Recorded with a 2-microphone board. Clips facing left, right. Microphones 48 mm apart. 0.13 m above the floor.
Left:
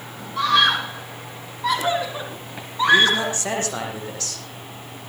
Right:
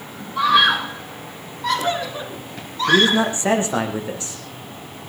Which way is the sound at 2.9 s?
20° right (ahead or behind).